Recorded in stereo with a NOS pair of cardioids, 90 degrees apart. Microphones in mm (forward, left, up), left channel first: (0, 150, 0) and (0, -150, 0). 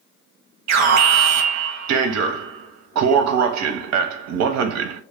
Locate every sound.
0.7 s an alarm: 65° right, 0.7 m